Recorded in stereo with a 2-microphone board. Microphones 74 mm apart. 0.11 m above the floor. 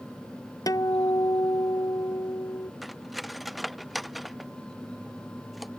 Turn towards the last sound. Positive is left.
turn(degrees=0)  # may be behind; listen again after turning